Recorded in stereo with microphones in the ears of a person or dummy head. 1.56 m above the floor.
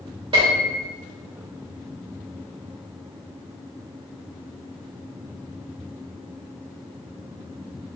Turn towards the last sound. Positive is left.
turn(degrees=-20)  # may be behind; listen again after turning